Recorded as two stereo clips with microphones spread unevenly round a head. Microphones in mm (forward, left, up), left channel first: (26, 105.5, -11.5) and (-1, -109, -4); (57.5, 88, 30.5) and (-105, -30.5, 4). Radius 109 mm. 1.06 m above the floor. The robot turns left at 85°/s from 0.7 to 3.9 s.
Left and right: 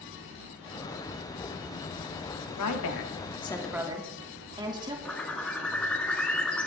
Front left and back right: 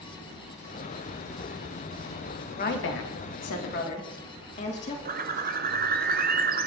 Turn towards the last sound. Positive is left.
turn(degrees=170)